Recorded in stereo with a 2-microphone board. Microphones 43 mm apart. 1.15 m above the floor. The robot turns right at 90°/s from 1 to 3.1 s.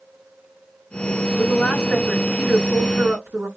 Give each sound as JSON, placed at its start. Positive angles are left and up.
{"t": 1.4, "sound": "a woman speaking", "azimuth_deg": 120, "distance_m": 1.6}